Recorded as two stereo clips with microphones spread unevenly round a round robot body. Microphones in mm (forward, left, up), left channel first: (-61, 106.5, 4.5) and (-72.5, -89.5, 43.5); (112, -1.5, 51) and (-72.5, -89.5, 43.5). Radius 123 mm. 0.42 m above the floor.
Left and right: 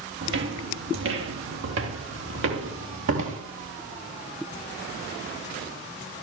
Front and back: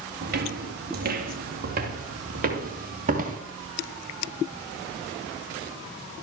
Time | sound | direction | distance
0.2 | footsteps | 115° right | 3 m